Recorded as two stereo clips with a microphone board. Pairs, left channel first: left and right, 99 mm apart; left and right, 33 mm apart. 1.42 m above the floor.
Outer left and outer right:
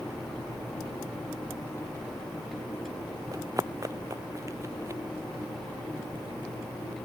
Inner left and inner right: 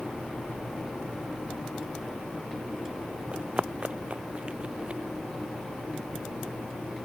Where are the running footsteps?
35° right (ahead or behind); by 5.0 s 30° right (ahead or behind).